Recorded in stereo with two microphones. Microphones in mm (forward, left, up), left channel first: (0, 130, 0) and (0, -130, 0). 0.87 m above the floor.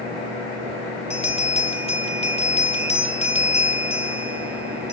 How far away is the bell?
About 1.9 m.